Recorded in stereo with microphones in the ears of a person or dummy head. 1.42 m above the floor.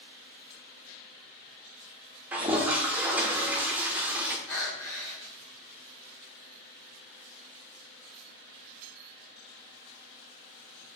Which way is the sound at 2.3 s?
10° right (ahead or behind).